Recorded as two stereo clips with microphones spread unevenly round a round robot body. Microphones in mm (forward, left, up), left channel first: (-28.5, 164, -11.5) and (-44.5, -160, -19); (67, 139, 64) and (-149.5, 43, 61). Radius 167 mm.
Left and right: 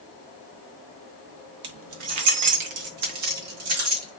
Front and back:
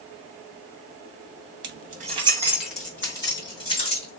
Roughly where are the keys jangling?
Behind right.